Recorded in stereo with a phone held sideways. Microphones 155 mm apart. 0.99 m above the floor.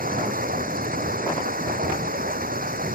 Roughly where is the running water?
Right.